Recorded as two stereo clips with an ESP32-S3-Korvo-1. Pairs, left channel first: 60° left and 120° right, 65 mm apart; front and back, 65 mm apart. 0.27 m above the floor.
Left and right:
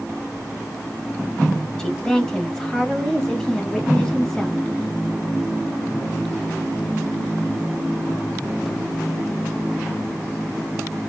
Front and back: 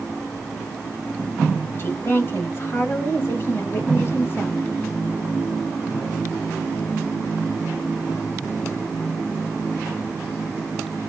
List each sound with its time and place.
1.8 s a woman speaking: 15° right, 1.2 m